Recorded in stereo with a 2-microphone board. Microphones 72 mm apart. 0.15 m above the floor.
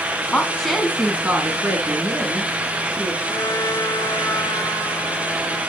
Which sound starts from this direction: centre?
A woman speaking, at 0.3 s.